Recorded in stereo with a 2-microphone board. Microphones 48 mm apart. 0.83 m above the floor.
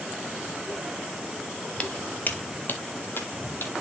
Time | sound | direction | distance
1.8 | footsteps | 20° left (ahead or behind) | 0.8 m